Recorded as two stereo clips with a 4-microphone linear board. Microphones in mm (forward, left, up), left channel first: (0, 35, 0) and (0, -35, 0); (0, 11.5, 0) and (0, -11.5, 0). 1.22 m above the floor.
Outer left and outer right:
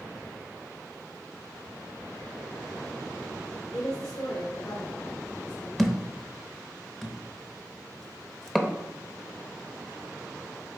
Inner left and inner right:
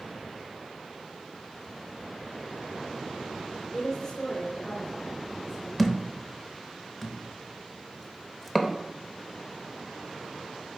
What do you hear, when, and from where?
3.7 s a woman speaking: 50° left (ahead or behind), 0.9 m; by 5.7 s 85° left, 2.5 m
5.8 s a thud: 5° left (ahead or behind), 0.6 m